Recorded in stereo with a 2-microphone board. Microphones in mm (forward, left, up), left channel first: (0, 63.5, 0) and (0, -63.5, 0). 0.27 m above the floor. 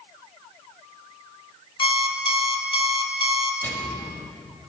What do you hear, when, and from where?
1.8 s an alarm clock: 45° left (ahead or behind), 0.7 m
3.6 s a microwave: 15° left (ahead or behind), 1.1 m